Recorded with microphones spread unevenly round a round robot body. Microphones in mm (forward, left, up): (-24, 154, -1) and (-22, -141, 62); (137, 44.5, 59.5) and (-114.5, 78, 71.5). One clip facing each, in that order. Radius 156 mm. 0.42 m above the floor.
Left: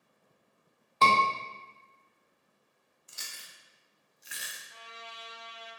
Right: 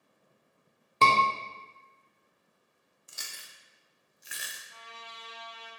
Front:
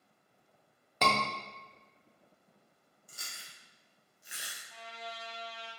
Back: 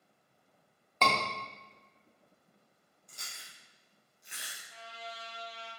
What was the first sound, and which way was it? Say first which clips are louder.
A scream: even, front 1 dB; 55° right.